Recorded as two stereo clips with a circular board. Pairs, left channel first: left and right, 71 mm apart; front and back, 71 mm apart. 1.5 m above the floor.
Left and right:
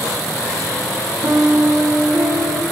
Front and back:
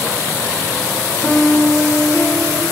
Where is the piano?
75° right, 1.4 m.